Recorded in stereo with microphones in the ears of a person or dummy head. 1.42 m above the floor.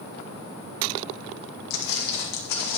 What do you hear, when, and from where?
1.7 s footsteps: 55° left (ahead or behind), 2.5 m